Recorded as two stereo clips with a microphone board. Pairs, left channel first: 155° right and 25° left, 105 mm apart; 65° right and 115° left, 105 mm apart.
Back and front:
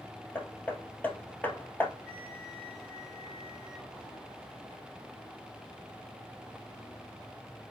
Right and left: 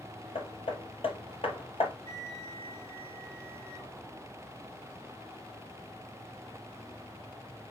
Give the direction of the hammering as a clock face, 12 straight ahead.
3 o'clock.